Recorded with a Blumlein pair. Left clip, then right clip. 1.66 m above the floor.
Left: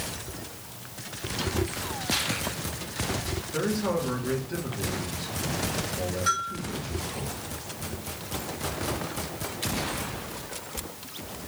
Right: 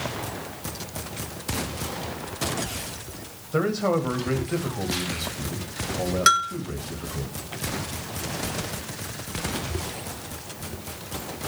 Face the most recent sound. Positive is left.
turn(degrees=-40)